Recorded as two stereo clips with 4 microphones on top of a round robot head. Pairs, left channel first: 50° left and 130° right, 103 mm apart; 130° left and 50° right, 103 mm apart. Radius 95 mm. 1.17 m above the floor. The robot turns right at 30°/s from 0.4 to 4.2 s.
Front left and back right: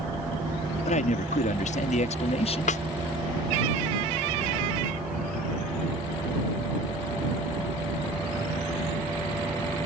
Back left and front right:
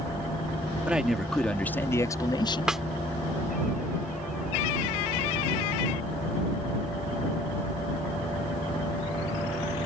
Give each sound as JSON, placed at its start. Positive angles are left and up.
{"t": 0.8, "sound": "a man speaking", "azimuth_deg": 30}
{"t": 2.7, "sound": "a snare drum", "azimuth_deg": 35}